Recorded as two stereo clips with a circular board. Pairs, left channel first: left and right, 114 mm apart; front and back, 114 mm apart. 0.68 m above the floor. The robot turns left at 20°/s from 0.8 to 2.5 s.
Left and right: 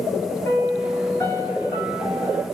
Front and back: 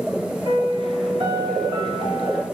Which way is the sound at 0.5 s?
20° left.